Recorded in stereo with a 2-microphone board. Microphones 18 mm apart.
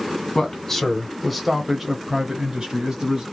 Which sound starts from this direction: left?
A man speaking, at 0.3 s.